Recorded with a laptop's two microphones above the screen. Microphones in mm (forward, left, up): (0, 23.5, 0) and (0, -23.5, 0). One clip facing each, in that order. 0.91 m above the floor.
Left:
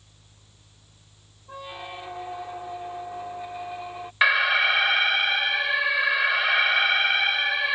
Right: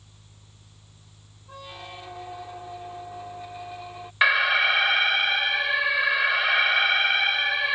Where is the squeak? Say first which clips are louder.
Left 3 dB; 15° left (ahead or behind).